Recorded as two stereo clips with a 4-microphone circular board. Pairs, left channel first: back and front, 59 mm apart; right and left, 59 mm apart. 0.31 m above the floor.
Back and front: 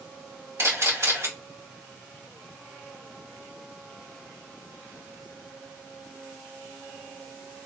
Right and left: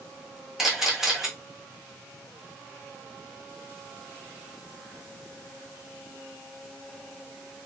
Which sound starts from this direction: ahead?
A camera shutter, at 0.6 s.